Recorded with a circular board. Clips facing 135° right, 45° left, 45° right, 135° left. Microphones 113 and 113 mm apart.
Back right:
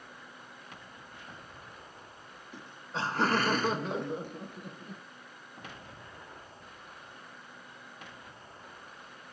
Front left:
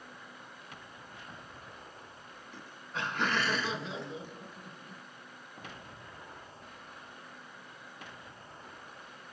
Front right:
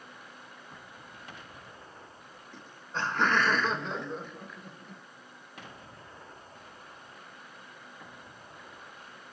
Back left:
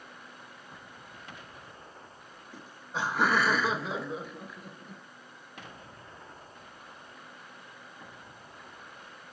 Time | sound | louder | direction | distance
2.5 | laughter | back right 3 dB, back left 1 dB | 165° right | 1.2 m